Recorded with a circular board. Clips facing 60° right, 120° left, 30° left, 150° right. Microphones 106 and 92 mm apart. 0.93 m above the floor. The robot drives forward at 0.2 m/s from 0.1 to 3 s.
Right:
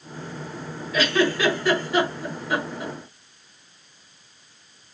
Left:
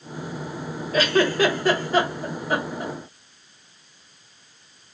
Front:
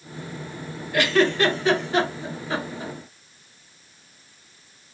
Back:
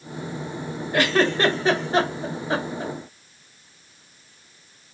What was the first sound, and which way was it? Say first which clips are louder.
A giggle: left 2 dB, front 1 dB; 160° left.